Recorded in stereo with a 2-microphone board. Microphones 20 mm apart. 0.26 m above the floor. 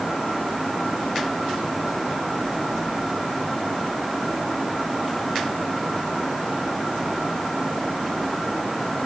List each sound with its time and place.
Only background noise.